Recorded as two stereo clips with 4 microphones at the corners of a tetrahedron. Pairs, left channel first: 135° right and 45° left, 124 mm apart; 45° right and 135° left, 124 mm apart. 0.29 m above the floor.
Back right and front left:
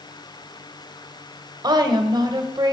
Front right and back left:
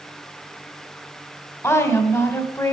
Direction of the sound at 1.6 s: 10° left.